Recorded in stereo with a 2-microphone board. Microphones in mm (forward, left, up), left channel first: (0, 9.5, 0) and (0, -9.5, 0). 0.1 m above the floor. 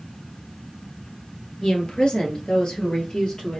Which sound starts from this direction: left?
A woman speaking, at 1.6 s.